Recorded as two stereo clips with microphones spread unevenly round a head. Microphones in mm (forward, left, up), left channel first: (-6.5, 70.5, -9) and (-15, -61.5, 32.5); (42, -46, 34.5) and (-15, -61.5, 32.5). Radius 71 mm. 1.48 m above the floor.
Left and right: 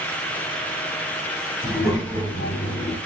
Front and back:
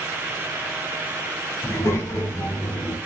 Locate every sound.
1.6 s a child speaking: 10° right, 1.9 m; by 3.0 s 15° left, 1.4 m